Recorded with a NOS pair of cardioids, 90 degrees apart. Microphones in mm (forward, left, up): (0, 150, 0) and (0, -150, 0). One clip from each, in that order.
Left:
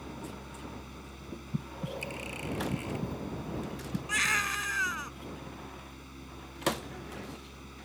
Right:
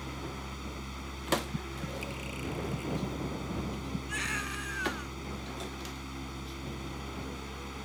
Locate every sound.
0.0 s a fan: 45° right
1.5 s breathing: 25° left
4.1 s a baby crying: 50° left